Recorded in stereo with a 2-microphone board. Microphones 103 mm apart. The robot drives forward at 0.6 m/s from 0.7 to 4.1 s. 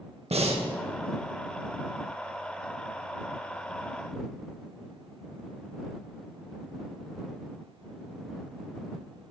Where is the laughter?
No laughter in this recording.